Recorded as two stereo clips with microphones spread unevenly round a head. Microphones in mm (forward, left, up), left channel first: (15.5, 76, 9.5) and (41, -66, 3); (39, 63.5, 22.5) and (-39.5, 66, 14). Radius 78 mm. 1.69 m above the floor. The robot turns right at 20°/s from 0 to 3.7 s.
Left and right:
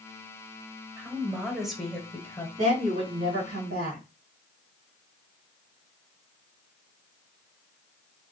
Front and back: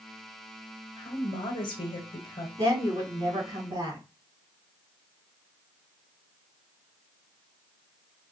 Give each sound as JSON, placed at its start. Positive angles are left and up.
{"t": 1.0, "sound": "a woman speaking", "azimuth_deg": -5, "distance_m": 1.5}
{"t": 2.6, "sound": "a woman speaking", "azimuth_deg": -140, "distance_m": 2.0}